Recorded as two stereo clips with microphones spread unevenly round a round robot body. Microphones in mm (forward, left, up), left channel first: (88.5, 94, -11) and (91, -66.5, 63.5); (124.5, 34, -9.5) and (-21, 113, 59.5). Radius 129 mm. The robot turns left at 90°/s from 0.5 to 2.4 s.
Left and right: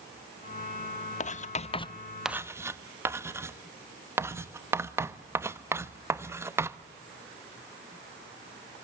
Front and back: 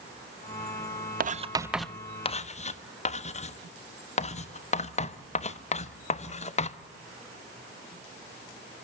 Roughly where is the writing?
Left.